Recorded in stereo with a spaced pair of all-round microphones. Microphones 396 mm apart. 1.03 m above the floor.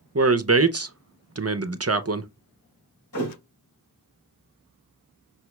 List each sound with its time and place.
0.1 s a man speaking: 35° right (ahead or behind), 0.5 m
3.1 s a thud: 75° left (ahead or behind), 4 m